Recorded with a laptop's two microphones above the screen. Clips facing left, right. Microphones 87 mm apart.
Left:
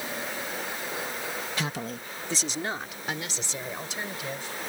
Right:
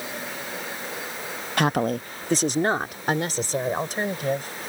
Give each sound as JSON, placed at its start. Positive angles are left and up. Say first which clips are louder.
{"t": 1.6, "sound": "a woman speaking", "louder": "right 10 dB", "side_deg": -55}